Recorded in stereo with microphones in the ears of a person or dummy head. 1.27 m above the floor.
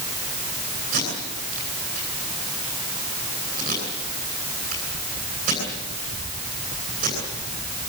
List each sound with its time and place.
0.9 s tape being pulled: 40° right (ahead or behind), 9.5 m